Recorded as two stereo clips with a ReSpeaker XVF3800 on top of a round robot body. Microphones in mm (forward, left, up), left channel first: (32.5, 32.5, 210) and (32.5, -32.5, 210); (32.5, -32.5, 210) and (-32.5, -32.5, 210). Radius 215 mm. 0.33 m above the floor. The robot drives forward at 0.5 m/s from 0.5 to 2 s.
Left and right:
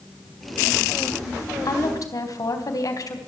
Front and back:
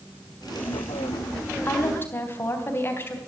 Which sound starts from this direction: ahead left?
A woman speaking, at 1.6 s.